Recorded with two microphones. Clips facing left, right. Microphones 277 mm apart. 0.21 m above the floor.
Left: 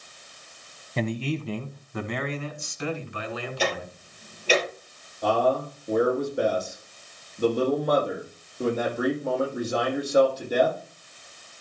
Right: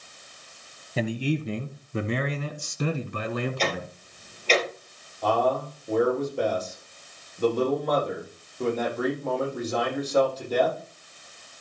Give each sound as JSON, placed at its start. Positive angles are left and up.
{"t": 1.0, "sound": "a man speaking", "side_deg": -5, "distance_m": 1.2}
{"t": 3.6, "sound": "ticking", "side_deg": 10, "distance_m": 3.5}
{"t": 5.2, "sound": "a man speaking", "side_deg": 10, "distance_m": 6.0}